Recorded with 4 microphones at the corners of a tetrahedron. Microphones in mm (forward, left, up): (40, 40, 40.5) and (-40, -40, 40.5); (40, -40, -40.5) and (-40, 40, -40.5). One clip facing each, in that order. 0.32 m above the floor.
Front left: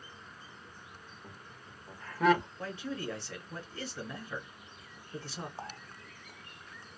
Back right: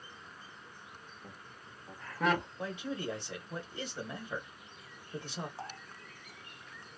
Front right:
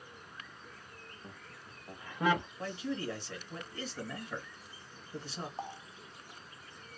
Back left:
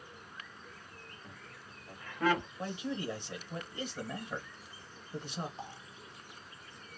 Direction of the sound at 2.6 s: 175° left.